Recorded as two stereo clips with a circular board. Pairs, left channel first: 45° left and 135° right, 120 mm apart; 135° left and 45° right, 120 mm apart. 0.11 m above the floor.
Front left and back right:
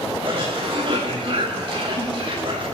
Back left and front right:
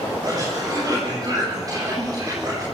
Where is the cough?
100° right, 6 m.